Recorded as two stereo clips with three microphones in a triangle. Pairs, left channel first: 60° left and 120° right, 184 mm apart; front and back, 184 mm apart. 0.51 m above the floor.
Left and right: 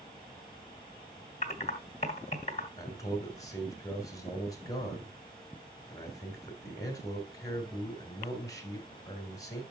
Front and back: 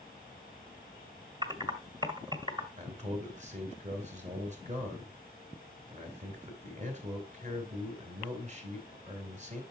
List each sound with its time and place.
1.4 s typing on a keyboard: 110° left, 1.7 m
2.8 s a man speaking: 130° left, 3.5 m